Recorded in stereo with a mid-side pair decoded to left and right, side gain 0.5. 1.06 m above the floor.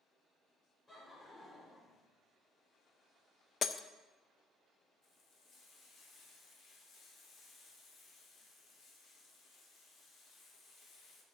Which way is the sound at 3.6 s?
45° left.